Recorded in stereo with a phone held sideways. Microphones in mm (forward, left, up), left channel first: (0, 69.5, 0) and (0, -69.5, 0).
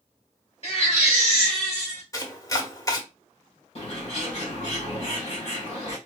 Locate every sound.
0.6 s a baby crying: 50° left (ahead or behind), 3 m
2.1 s chopping: 25° left (ahead or behind), 1.1 m
3.8 s a bird: 50° left (ahead or behind), 3 m